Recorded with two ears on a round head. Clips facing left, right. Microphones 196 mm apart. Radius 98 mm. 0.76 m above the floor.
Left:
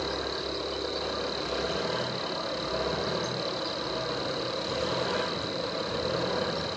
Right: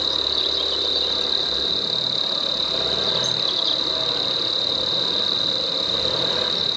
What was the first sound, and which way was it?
An insect, 50° right (ahead or behind).